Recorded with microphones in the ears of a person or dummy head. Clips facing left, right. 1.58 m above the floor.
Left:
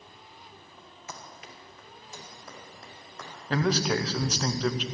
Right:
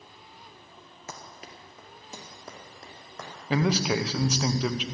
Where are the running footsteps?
40° right (ahead or behind), 2.0 m; by 3.3 s 55° right (ahead or behind), 5 m.